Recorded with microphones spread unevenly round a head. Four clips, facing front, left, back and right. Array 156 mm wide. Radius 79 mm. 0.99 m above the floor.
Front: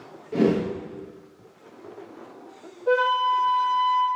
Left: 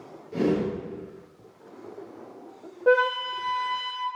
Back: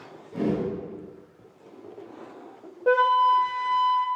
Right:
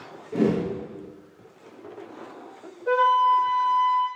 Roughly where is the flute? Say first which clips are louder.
Right 3 dB, back 2 dB; behind left.